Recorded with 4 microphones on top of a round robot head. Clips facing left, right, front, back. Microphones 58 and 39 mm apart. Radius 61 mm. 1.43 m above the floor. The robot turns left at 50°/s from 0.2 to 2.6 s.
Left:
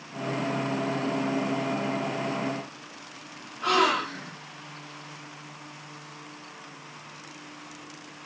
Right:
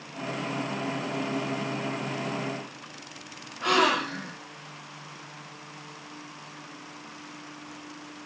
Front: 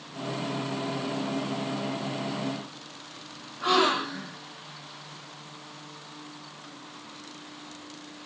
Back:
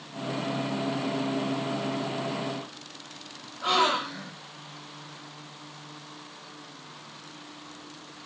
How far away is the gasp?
About 1.1 m.